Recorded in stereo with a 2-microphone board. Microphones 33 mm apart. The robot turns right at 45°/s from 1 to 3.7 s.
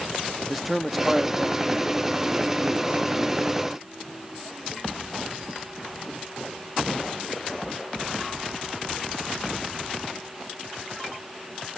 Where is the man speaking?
175° right, 0.8 m; by 3.6 s 60° right, 0.8 m.